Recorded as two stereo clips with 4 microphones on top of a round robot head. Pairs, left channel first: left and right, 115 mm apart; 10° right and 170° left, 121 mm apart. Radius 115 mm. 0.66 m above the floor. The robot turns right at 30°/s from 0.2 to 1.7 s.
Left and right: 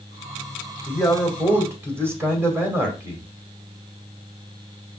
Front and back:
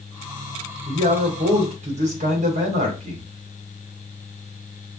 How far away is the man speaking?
About 2 m.